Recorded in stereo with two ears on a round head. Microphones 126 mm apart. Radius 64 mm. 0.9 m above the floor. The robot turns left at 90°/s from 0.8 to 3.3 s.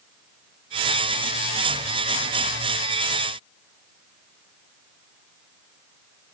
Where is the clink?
No clink in this recording.